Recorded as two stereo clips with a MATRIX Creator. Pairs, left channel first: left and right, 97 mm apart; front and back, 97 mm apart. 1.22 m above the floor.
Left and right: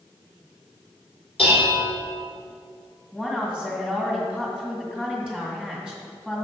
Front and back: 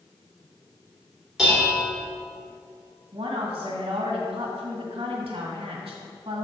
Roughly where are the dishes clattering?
Left.